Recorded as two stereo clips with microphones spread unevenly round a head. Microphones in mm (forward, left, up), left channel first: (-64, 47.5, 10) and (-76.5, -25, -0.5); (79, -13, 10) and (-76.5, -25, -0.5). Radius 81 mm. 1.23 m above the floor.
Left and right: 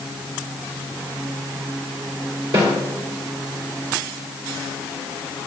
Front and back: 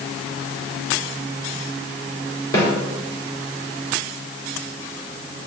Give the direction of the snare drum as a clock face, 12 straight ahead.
2 o'clock.